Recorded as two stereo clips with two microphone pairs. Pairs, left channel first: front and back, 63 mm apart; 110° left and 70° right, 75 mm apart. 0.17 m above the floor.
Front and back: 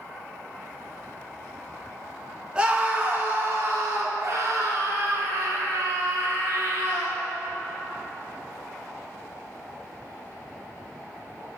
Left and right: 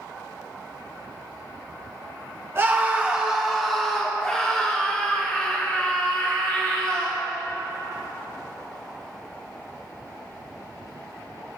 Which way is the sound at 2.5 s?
115° right.